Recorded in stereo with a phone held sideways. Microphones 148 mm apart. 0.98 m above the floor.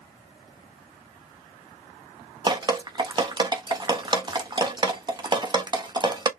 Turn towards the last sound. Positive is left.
turn(degrees=-30)  # may be behind; listen again after turning